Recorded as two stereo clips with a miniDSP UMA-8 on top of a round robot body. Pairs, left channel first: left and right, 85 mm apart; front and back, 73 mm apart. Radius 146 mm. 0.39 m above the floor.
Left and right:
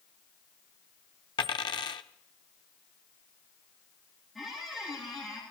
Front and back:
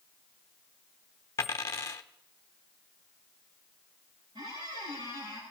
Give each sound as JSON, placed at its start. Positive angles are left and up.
{"t": 1.4, "sound": "a dropped coin", "azimuth_deg": 55, "distance_m": 0.6}
{"t": 4.3, "sound": "a squeak", "azimuth_deg": 180, "distance_m": 9.5}